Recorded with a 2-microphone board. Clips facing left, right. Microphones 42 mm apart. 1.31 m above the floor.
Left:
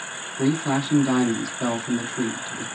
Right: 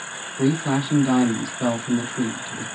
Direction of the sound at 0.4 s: 15° right (ahead or behind).